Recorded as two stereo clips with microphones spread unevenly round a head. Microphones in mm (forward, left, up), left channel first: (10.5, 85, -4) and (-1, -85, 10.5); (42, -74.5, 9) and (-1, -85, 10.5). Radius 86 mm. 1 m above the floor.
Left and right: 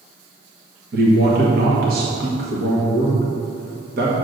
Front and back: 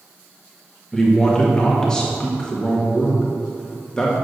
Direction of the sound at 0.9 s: 60° right.